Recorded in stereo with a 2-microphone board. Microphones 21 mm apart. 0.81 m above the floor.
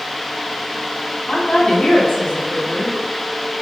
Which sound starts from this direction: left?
A woman speaking, at 1.3 s.